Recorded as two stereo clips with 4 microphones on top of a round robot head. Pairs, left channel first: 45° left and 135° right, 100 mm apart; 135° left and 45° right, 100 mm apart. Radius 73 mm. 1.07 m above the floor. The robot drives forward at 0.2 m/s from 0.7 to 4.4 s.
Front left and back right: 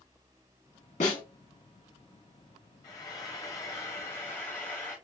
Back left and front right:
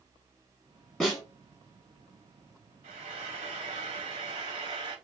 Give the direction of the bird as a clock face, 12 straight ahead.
No bird in this recording.